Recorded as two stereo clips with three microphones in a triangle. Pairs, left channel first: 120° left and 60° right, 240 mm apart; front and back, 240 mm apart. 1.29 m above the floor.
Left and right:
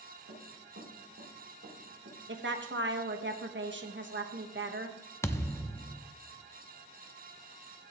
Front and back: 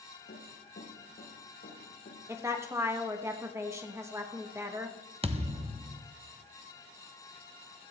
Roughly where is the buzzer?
I don't hear a buzzer.